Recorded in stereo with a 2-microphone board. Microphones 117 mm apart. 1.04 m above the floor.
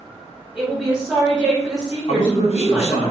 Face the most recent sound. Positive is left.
turn(degrees=65)  # may be behind; listen again after turning